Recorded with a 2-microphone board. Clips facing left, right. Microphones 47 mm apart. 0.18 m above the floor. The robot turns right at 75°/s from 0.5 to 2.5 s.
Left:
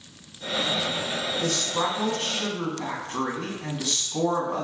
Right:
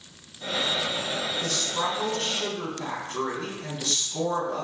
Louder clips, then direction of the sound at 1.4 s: Left 4 dB; 10° left (ahead or behind).